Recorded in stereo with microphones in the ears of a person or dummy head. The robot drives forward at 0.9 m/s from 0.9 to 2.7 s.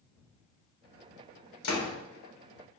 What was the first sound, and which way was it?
A door slam, 85° left.